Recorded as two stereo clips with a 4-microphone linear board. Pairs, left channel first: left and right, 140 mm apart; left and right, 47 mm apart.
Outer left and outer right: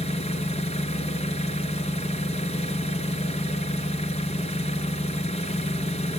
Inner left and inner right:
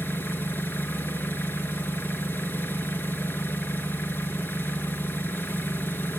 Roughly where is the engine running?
Left.